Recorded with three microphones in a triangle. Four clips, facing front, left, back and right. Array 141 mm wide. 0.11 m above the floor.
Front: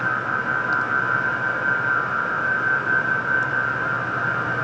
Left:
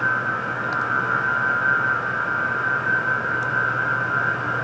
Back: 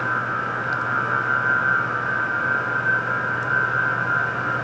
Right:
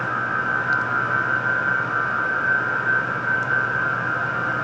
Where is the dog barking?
I don't hear a dog barking.